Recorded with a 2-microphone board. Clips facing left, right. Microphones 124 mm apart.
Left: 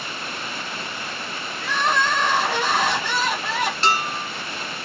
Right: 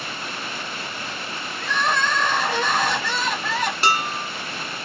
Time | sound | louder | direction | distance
1.6 | crying | left 1 dB | 5° left (ahead or behind) | 1.4 m
3.8 | dishes clattering | even | 10° right (ahead or behind) | 1.4 m